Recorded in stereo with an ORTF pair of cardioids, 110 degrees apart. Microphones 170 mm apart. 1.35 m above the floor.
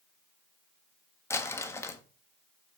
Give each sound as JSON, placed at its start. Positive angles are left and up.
{"t": 1.3, "sound": "crumpling", "azimuth_deg": 15, "distance_m": 1.3}